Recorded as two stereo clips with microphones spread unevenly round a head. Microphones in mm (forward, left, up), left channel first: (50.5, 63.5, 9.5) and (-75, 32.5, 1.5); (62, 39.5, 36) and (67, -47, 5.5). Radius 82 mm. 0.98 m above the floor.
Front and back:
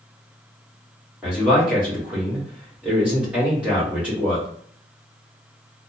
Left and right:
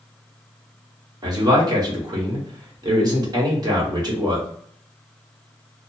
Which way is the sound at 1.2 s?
85° right.